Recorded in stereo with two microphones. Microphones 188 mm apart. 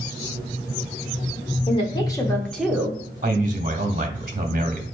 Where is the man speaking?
45° right (ahead or behind), 0.9 m.